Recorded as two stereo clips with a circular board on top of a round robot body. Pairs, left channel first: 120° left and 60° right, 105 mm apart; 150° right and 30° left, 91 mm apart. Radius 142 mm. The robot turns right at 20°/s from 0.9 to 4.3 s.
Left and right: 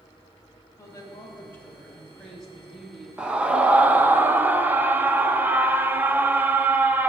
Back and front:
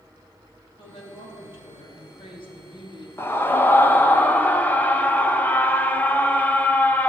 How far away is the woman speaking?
About 3.5 m.